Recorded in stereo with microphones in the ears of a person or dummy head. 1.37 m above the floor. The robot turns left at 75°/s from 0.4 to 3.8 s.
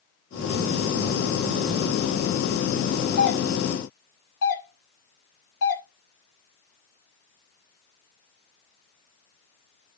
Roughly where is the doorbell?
Left.